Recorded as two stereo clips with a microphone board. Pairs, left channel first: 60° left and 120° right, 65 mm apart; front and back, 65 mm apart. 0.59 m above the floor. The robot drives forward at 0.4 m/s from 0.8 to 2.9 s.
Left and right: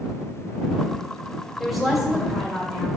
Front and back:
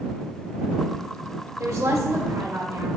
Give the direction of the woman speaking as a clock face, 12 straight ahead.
7 o'clock.